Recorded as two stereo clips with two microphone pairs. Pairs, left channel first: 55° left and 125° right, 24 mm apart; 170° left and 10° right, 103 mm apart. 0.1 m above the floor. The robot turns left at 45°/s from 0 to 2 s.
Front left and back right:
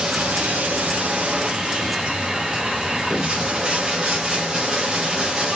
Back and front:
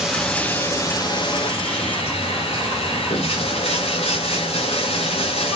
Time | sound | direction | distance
0.0 | running water | 95° right | 1.8 m